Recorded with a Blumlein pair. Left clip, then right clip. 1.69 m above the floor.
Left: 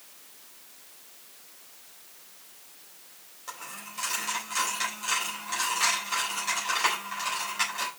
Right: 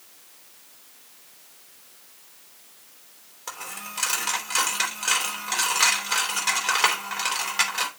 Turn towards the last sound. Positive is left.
turn(degrees=-45)